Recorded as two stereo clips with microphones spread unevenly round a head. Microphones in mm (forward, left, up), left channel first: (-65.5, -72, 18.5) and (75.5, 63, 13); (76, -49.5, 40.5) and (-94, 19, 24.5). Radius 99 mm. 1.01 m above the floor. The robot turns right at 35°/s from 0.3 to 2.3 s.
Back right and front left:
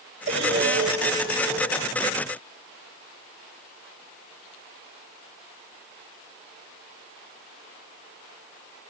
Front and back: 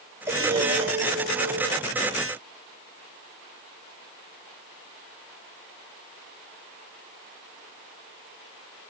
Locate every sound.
0.3 s breathing: 80° left, 1.3 m; by 1.8 s 130° left, 1.3 m